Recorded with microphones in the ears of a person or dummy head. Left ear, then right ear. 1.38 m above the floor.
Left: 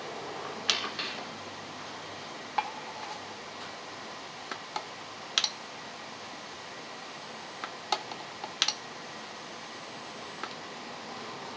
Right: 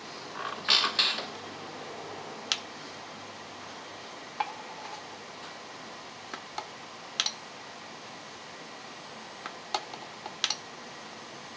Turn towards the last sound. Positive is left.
turn(degrees=-35)  # may be behind; listen again after turning